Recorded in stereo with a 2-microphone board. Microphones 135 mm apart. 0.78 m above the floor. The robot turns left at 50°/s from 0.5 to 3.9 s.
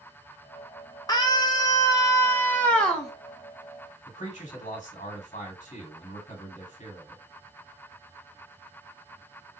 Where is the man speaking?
65° left (ahead or behind), 2.0 m.